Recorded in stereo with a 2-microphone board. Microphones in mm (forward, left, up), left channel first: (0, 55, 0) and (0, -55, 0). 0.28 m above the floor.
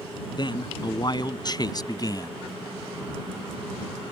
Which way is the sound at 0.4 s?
45° left (ahead or behind).